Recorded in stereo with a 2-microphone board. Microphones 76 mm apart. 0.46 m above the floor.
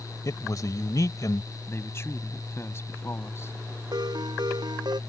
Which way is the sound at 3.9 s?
65° right (ahead or behind).